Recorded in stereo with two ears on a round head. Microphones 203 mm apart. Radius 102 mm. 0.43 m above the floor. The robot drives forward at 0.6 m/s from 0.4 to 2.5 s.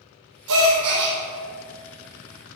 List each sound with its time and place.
0.5 s a gasp: 85° right, 2.5 m; by 1.2 s 80° right, 2.5 m